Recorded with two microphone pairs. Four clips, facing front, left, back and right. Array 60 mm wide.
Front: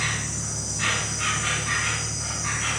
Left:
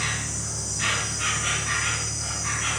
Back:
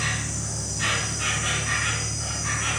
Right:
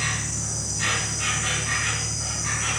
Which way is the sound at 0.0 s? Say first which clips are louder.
Right 1 dB, even; 35° right.